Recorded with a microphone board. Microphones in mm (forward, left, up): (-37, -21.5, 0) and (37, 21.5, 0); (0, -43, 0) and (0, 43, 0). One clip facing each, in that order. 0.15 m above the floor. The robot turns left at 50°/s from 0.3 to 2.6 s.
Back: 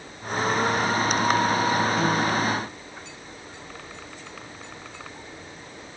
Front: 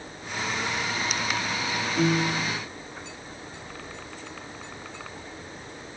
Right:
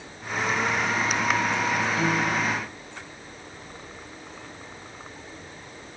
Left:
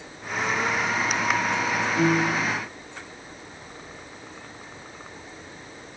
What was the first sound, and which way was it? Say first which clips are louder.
A piano: back 2 dB, left 2 dB; 105° left.